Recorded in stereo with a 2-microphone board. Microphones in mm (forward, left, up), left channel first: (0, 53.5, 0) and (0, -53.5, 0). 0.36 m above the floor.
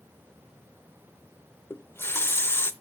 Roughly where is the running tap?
Left.